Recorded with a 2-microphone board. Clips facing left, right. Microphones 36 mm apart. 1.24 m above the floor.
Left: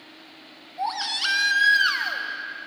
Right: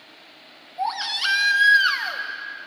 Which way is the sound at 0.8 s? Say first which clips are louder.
Right 2 dB; 5° right (ahead or behind).